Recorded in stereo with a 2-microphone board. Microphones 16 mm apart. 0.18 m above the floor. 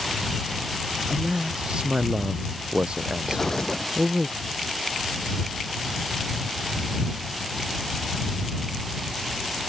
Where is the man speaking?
75° right (ahead or behind); by 4.3 s 65° right (ahead or behind).